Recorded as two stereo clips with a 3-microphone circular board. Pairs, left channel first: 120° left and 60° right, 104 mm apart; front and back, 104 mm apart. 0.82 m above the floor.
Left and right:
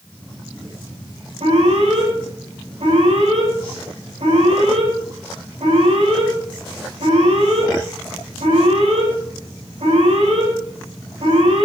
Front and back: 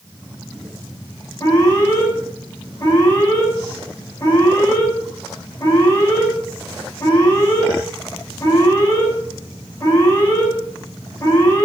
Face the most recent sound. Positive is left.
turn(degrees=-50)